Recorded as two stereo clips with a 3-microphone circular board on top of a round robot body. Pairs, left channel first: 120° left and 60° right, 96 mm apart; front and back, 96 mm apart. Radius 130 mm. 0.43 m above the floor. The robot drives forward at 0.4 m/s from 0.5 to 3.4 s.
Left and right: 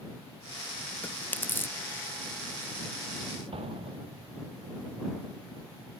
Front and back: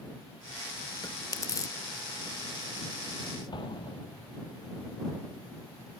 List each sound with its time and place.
1.0 s chewing: 45° left; by 1.8 s 55° left
3.5 s an explosion: 40° right